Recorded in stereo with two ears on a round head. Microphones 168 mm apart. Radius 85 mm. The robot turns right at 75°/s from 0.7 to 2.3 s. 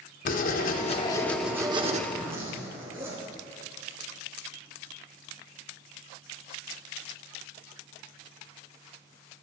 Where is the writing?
125° left, 1.3 m; by 2.0 s 135° right, 1.3 m.